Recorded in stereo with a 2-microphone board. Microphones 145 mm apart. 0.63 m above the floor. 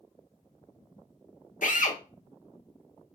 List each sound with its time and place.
1.6 s a drill: 65° left (ahead or behind), 0.8 m